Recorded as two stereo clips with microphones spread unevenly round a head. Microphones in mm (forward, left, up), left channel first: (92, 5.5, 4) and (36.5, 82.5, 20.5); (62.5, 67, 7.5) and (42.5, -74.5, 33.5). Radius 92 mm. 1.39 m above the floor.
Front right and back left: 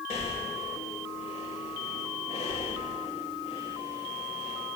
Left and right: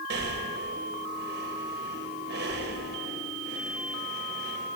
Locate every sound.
0.1 s breathing: 100° right, 2 m